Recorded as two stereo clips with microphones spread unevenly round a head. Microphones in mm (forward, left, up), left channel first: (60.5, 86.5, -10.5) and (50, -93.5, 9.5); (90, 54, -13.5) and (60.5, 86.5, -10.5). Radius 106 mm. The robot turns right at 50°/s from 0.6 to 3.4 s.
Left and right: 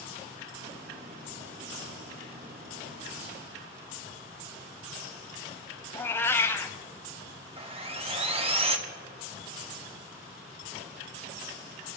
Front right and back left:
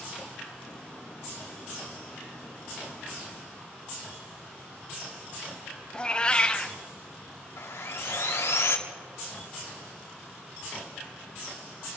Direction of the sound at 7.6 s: 35° right.